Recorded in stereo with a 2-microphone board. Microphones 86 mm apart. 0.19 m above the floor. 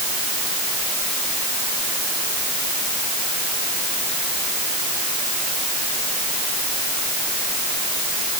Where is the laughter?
No laughter in this recording.